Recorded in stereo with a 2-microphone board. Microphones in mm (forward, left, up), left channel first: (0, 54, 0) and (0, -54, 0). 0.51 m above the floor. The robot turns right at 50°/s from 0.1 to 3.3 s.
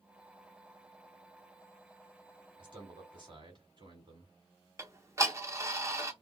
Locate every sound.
2.6 s a man speaking: 105° right, 1.6 m; by 4.3 s 65° right, 1.6 m
4.8 s ticking: 25° right (ahead or behind), 0.6 m